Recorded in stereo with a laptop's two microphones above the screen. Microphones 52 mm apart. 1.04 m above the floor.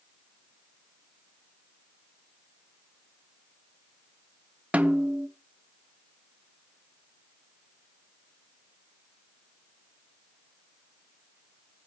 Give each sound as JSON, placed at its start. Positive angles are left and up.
{"t": 4.7, "sound": "a snare drum", "side_deg": -25, "distance_m": 1.3}